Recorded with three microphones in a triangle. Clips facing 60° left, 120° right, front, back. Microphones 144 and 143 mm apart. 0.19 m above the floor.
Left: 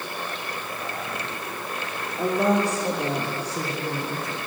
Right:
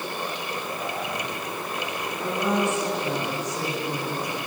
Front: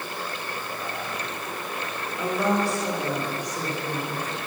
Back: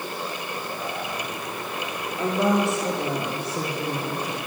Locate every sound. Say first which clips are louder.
2.2 s a woman speaking: left 4 dB, back 2 dB; 110° left, 5 m; by 4.4 s 125° left, 4 m